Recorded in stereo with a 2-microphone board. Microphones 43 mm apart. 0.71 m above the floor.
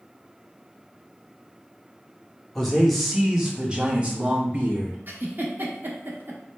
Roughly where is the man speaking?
Centre.